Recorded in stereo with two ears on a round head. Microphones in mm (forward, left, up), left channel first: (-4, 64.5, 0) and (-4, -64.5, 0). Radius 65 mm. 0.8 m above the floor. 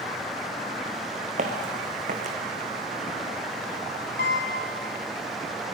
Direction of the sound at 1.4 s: 55° right (ahead or behind).